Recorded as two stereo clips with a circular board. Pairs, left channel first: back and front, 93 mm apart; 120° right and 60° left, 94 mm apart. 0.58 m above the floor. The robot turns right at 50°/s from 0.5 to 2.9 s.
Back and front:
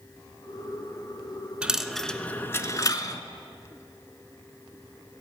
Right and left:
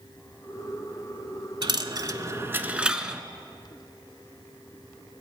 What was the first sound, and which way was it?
A dropped coin, 75° left.